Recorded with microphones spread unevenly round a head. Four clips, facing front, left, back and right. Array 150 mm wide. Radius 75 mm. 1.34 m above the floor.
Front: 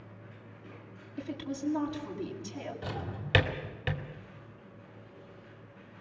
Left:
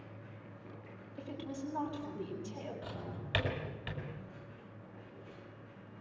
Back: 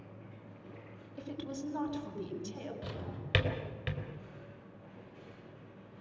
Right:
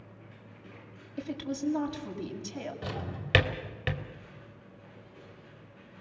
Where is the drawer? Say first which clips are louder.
Right 6 dB, front 4 dB; 75° right, 3 m.